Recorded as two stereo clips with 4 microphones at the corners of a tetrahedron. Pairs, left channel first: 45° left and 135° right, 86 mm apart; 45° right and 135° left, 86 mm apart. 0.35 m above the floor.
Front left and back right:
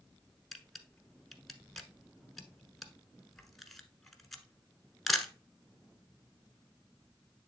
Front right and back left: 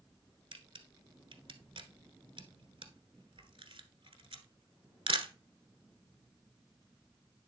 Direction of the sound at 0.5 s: 130° left.